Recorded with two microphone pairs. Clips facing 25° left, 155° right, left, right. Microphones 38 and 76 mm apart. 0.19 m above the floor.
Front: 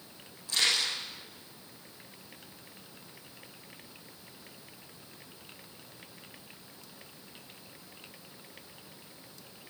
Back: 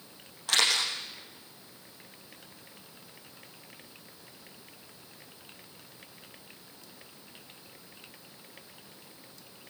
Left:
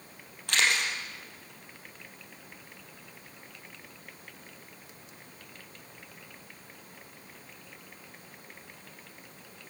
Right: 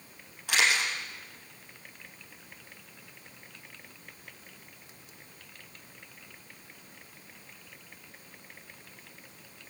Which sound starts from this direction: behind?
A camera shutter, at 0.5 s.